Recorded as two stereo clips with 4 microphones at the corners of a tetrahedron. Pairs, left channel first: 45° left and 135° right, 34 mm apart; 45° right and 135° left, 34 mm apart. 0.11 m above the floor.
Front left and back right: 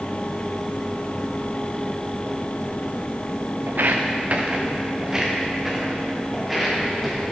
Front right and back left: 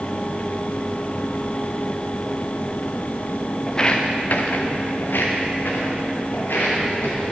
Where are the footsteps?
125° right, 0.7 m; by 7.2 s 40° right, 3 m.